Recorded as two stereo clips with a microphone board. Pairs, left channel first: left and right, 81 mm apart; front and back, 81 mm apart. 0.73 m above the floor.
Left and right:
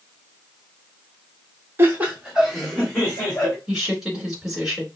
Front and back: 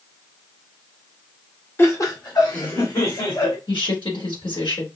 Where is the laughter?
45° right, 1.4 m; by 3.6 s 15° left, 3 m.